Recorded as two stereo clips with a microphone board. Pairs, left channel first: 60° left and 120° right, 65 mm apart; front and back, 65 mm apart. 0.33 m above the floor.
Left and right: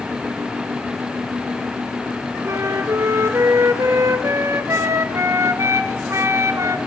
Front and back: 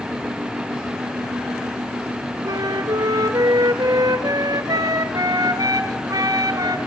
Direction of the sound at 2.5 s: 165° right.